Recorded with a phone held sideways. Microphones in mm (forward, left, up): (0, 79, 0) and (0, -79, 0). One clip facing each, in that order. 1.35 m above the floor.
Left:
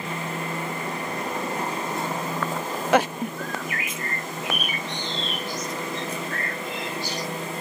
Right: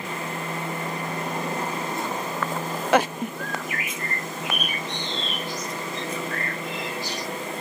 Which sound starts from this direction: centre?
A bird, at 3.4 s.